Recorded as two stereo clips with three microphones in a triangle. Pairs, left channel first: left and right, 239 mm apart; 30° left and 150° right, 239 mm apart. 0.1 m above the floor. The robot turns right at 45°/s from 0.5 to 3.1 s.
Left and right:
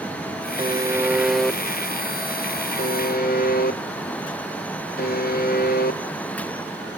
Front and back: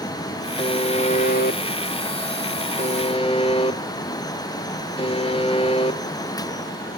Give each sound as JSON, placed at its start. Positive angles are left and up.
{"t": 0.6, "sound": "a buzzer", "azimuth_deg": -35, "distance_m": 0.7}